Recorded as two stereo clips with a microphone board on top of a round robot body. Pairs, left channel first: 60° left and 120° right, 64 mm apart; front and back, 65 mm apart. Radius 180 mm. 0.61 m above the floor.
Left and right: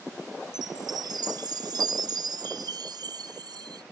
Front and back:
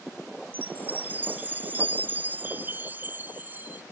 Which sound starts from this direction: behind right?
A chime, at 0.5 s.